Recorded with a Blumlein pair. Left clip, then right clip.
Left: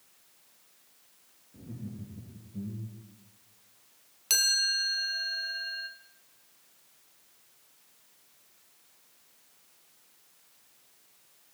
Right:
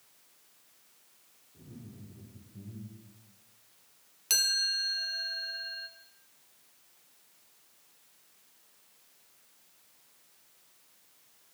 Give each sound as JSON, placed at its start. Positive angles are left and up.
{"t": 1.5, "sound": "laughter", "azimuth_deg": 50, "distance_m": 3.5}
{"t": 4.3, "sound": "a chime", "azimuth_deg": 0, "distance_m": 1.1}